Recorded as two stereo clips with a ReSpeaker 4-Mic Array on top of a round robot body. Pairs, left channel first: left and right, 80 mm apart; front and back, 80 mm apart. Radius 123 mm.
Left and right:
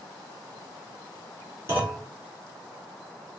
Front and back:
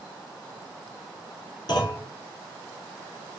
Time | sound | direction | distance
1.7 | a clunk | 30° right | 2.0 m